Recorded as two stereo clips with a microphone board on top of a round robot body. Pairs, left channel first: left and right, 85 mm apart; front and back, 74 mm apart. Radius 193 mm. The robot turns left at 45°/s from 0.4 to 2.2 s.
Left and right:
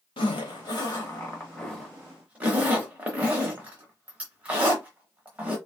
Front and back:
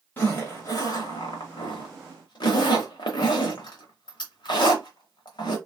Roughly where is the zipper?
Ahead left.